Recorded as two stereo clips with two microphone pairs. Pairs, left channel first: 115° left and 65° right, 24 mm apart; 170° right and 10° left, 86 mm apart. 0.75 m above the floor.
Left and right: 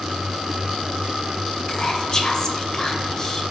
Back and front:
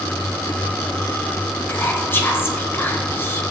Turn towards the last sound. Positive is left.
turn(degrees=150)